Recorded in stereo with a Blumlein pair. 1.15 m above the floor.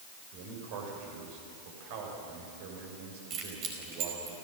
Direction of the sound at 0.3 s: 50° right.